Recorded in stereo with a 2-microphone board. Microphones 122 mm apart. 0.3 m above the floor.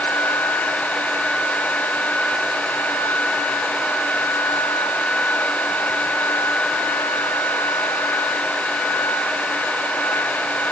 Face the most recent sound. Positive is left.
No sound to turn to.